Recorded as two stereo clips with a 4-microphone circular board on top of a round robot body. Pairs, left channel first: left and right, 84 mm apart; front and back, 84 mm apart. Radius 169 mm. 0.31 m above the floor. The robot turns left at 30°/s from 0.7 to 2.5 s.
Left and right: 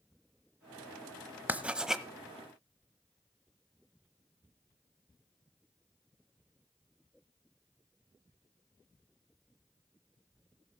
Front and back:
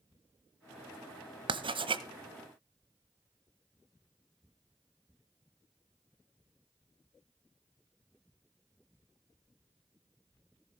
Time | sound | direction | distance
1.5 | writing | 160° right | 1.1 m